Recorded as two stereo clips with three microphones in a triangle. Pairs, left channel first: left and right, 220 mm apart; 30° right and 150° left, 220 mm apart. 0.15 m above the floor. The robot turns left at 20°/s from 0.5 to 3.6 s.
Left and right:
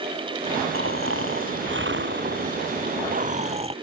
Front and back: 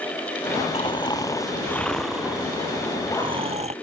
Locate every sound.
0.7 s snoring: 95° right; by 3.7 s 150° right